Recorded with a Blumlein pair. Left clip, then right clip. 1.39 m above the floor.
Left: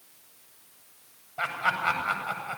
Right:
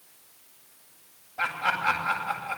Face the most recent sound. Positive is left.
turn(degrees=15)